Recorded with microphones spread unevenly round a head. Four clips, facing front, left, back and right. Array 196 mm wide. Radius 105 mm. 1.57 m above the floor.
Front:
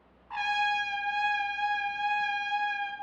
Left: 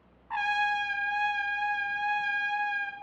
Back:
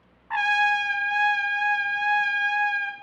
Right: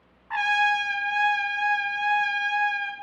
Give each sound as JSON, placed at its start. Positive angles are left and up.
{"t": 0.3, "sound": "a trumpet", "azimuth_deg": -155, "distance_m": 1.1}